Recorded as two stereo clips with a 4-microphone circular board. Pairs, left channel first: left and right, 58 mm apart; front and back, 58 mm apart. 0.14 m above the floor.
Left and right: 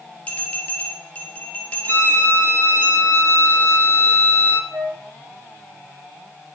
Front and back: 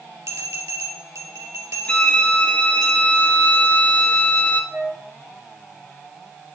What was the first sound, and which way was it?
A bell, 155° left.